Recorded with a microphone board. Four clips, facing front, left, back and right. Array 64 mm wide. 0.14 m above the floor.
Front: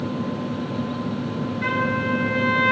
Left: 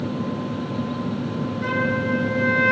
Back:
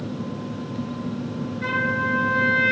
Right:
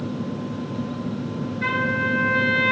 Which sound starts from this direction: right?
A trumpet, at 1.6 s.